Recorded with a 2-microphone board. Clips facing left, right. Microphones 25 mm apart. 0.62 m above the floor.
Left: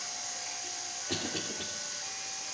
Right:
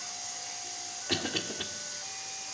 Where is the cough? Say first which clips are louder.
Right 4 dB; 35° right (ahead or behind), 1.5 m.